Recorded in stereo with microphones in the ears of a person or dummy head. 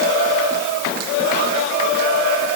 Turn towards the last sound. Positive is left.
No sound to turn to.